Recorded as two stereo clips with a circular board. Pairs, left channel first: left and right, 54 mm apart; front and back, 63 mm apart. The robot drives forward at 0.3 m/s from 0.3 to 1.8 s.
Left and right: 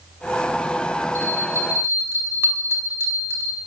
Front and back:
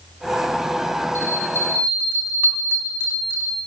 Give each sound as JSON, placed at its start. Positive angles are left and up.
{"t": 1.1, "sound": "a bell", "azimuth_deg": -50, "distance_m": 5.0}